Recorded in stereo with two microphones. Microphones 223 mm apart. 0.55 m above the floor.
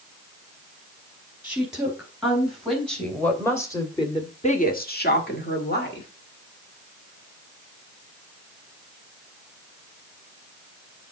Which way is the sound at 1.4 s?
5° right (ahead or behind).